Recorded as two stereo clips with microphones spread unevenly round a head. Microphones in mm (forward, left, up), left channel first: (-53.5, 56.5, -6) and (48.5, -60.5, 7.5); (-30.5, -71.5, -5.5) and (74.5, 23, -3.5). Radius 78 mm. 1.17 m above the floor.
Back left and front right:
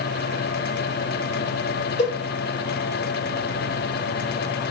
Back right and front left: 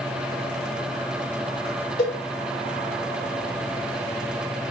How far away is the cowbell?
About 1.4 m.